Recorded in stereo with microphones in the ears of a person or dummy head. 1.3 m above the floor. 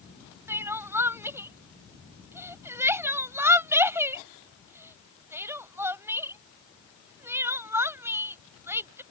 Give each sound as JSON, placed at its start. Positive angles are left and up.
{"t": 0.5, "sound": "crying", "side_deg": -10}